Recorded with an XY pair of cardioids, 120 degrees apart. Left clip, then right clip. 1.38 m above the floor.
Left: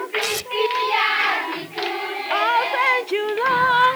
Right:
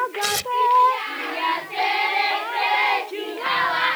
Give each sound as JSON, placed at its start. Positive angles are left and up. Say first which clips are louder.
{"t": 0.2, "sound": "tearing paper", "louder": "right 1 dB", "azimuth_deg": -20}